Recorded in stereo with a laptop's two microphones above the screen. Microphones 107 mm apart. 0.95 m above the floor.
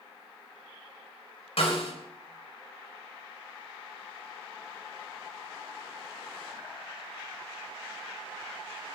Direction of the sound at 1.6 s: 70° left (ahead or behind).